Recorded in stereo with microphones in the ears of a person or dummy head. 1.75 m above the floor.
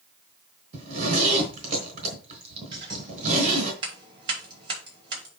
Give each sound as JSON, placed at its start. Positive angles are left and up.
{"t": 0.7, "sound": "a zipper", "side_deg": -40, "distance_m": 3.5}
{"t": 2.7, "sound": "scissors", "side_deg": -30, "distance_m": 7.0}